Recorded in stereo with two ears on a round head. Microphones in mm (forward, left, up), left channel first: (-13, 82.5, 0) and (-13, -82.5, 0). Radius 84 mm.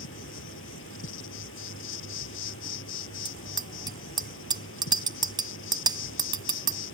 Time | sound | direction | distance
0.0 | an insect | 80° left | ?
3.2 | a bicycle bell | 25° right (ahead or behind) | ?